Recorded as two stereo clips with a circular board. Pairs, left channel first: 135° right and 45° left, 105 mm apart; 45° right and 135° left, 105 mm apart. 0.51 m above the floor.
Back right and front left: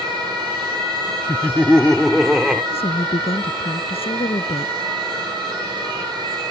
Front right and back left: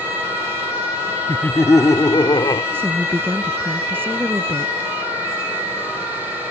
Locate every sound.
1.3 s laughter: 100° right; by 2.6 s 35° right
2.7 s a woman speaking: 155° right